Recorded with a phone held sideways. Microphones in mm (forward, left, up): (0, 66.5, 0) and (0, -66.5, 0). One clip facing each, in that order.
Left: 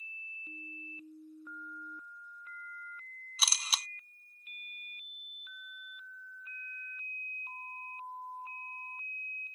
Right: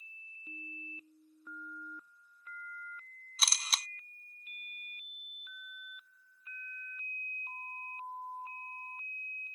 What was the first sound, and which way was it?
A camera shutter, 5° left (ahead or behind).